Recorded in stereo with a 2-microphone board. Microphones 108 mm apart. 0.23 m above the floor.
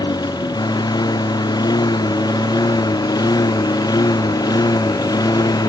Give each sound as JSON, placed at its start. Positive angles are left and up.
{"t": 0.0, "sound": "a lawn mower", "side_deg": 40}